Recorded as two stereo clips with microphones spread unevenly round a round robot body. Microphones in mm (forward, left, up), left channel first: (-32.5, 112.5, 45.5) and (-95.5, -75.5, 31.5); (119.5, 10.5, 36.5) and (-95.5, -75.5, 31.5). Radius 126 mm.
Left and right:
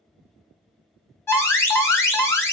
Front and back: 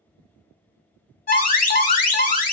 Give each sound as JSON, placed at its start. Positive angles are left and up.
{"t": 1.3, "sound": "an alarm", "azimuth_deg": -5, "distance_m": 1.4}